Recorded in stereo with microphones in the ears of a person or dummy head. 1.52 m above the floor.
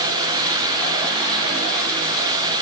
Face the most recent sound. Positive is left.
No sound to turn to.